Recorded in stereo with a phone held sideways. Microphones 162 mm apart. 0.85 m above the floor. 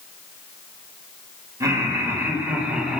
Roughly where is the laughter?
Centre.